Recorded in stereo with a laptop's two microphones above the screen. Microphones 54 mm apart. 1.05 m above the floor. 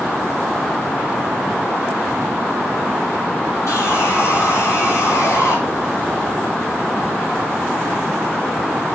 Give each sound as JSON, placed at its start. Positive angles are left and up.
{"t": 3.7, "sound": "sawing", "side_deg": 75, "distance_m": 3.0}